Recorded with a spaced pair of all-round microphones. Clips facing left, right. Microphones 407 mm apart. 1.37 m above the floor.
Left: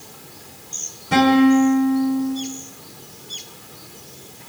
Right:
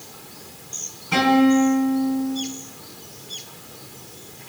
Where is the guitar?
85° left, 3.5 m.